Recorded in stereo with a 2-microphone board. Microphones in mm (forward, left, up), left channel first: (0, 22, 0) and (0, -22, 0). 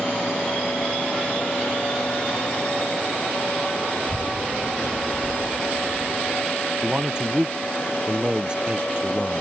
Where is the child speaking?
30° right (ahead or behind); by 6.5 s 15° left (ahead or behind).